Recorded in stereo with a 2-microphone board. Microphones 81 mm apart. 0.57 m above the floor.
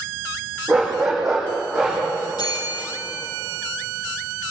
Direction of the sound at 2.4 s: 55° left (ahead or behind).